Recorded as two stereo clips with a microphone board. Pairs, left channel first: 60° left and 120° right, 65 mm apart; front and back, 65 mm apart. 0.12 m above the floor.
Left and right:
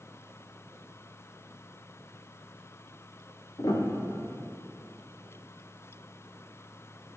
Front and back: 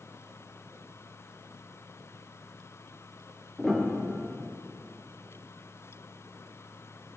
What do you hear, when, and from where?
3.6 s a piano: 80° left, 3 m